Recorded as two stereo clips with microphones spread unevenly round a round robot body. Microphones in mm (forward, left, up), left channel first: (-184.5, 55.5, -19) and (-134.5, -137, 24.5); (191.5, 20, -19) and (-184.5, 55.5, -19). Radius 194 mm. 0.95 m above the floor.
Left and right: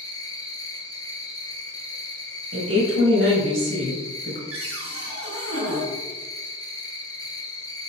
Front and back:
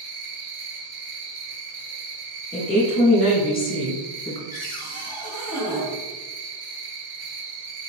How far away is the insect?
About 1.7 m.